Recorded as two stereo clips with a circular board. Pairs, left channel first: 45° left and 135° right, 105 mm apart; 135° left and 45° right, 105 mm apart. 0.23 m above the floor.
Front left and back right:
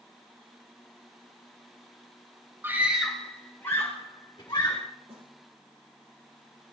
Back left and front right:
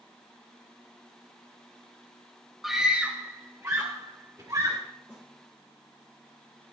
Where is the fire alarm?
I don't hear a fire alarm.